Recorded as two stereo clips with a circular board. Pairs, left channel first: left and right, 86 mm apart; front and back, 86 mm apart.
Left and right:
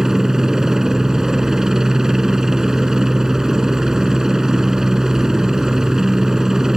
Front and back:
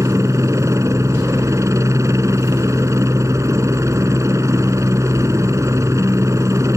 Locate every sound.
0.0 s a helicopter: 170° right